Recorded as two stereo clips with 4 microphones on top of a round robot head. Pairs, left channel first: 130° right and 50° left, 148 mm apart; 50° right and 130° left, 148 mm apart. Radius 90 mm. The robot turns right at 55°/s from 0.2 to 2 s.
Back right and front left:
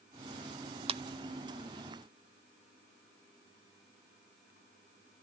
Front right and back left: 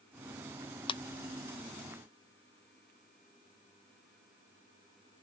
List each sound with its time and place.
0.9 s a clap: straight ahead, 0.7 m; by 1.0 s 10° left, 0.7 m